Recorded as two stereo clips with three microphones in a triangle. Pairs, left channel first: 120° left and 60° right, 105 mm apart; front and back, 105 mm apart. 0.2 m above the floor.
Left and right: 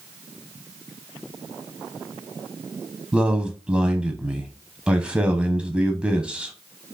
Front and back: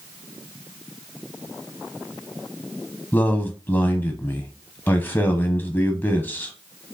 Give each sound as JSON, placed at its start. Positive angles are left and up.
{"t": 3.1, "sound": "a man speaking", "azimuth_deg": -5, "distance_m": 1.0}